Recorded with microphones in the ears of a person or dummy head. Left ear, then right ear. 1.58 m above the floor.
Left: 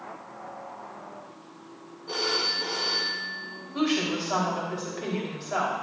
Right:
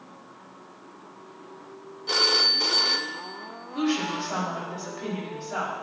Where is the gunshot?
I don't hear a gunshot.